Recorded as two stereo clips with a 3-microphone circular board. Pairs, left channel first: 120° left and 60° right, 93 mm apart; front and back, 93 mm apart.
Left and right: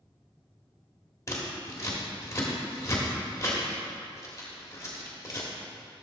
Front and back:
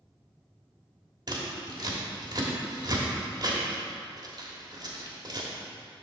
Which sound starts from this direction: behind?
Scissors, at 1.3 s.